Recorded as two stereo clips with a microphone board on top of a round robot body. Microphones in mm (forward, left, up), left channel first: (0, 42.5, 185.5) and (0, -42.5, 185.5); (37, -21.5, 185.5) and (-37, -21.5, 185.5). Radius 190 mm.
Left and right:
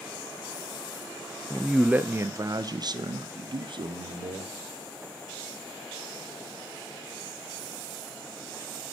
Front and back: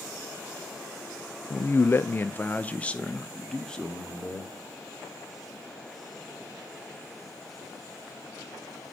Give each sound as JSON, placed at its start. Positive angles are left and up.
{"t": 1.5, "sound": "a man speaking", "azimuth_deg": 10, "distance_m": 0.8}